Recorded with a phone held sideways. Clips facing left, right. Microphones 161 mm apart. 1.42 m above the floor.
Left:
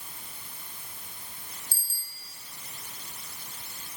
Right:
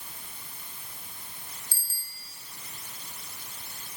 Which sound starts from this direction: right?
A bicycle bell, at 1.7 s.